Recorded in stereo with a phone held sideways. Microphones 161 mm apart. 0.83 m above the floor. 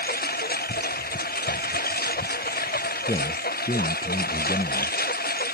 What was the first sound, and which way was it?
A lawn mower, 75° left (ahead or behind).